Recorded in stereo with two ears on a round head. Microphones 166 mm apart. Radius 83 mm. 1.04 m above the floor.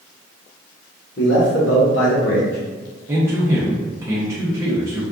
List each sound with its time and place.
1.2 s a man speaking: 65° left (ahead or behind), 1.1 m; by 2.6 s 55° left (ahead or behind), 1.1 m
3.1 s a man speaking: 15° right (ahead or behind), 0.6 m